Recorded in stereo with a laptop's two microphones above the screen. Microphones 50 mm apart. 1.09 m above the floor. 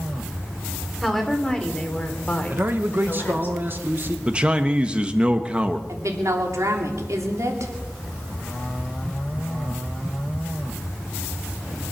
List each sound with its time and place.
1.0 s a woman speaking: 5° left (ahead or behind), 3.5 m; by 3.5 s 40° left (ahead or behind), 3.5 m
2.5 s a man speaking: 45° right (ahead or behind), 1.3 m
4.3 s a man speaking: 25° right (ahead or behind), 1.1 m
5.9 s a woman speaking: 80° right, 2.5 m